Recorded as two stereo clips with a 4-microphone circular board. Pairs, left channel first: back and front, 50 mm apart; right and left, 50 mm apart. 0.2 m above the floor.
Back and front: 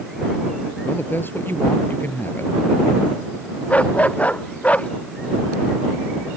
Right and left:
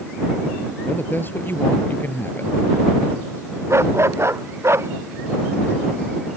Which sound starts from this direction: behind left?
A dog barking, at 3.7 s.